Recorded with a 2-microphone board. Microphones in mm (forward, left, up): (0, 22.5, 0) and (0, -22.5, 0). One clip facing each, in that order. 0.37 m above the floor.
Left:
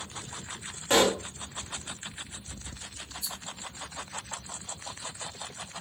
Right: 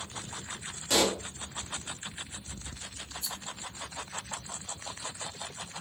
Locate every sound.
0.9 s a pop: 30° left (ahead or behind), 0.6 m
3.2 s a rattle: 45° right (ahead or behind), 0.8 m